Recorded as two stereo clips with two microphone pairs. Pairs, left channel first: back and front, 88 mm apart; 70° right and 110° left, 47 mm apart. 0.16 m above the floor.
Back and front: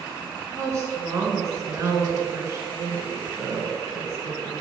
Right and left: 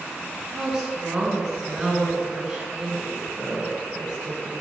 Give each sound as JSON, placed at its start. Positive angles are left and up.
{"t": 0.5, "sound": "a woman speaking", "azimuth_deg": 40, "distance_m": 1.6}